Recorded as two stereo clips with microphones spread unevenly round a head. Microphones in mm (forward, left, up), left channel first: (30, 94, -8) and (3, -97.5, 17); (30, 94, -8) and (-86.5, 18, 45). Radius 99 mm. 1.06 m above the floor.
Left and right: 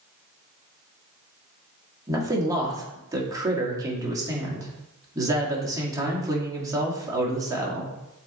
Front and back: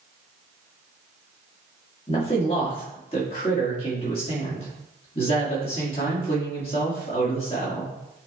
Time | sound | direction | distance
2.1 | a man speaking | 25° right | 2.0 m